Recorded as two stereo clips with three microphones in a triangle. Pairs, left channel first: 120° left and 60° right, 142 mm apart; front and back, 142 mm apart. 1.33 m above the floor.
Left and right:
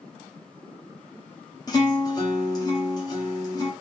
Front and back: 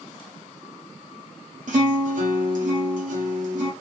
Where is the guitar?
Straight behind, 1.1 m.